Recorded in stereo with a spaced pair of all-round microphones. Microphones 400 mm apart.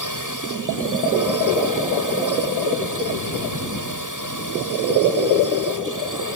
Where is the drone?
50° right (ahead or behind).